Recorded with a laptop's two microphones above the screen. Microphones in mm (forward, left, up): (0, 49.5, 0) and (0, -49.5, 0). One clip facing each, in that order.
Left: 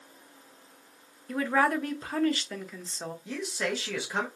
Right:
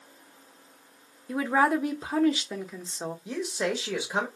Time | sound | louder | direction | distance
1.3 | a woman speaking | right 2 dB | 15° right (ahead or behind) | 0.6 m
3.2 | a man speaking | right 3 dB | 15° right (ahead or behind) | 0.9 m